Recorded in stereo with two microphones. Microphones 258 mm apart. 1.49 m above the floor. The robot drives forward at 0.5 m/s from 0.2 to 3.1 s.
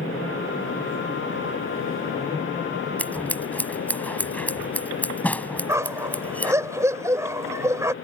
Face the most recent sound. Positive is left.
turn(degrees=-10)  # may be behind; listen again after turning